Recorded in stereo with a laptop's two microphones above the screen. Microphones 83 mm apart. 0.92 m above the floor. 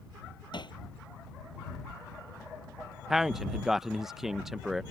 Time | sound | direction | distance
0.5 | hammering | 65° left (ahead or behind) | ?
3.1 | a man speaking | 5° right (ahead or behind) | ?